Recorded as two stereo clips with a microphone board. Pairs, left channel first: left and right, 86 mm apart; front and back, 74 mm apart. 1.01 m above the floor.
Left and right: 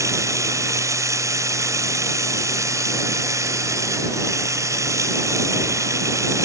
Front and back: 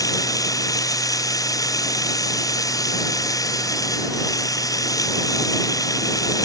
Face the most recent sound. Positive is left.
turn(degrees=-40)